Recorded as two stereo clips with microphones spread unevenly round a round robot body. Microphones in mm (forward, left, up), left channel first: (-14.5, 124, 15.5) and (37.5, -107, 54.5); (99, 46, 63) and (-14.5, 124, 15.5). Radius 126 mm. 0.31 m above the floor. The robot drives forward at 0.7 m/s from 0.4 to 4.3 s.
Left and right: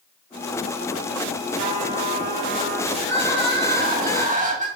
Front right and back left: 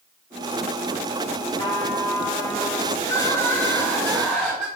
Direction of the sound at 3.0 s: 110° right.